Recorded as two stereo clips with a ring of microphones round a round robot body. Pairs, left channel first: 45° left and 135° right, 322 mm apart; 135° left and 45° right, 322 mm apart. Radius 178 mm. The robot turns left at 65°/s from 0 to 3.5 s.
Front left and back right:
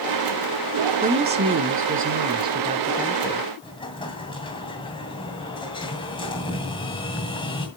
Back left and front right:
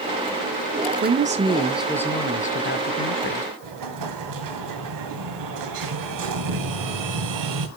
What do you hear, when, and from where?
1.0 s a woman speaking: 80° right, 1.0 m; by 3.5 s 120° left, 1.0 m
3.6 s an explosion: 30° right, 2 m